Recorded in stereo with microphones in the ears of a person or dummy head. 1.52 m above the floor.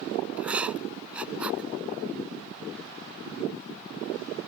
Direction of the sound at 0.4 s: 5° right (ahead or behind).